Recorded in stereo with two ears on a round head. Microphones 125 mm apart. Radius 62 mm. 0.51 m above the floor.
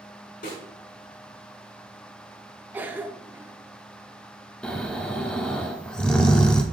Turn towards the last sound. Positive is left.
turn(degrees=5)  # may be behind; listen again after turning